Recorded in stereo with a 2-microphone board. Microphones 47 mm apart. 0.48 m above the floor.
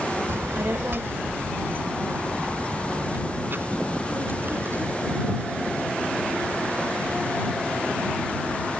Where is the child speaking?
60° right (ahead or behind); by 5.8 s 50° right (ahead or behind).